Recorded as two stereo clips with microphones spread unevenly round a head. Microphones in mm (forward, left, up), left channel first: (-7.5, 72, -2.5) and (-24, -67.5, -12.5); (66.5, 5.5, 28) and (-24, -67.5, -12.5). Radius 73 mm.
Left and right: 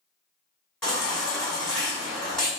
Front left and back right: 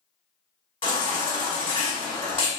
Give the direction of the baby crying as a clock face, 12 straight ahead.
12 o'clock.